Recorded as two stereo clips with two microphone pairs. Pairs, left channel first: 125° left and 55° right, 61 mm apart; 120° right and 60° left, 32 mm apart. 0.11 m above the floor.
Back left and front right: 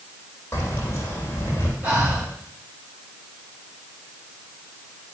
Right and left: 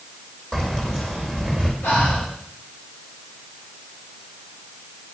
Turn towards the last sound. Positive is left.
turn(degrees=-120)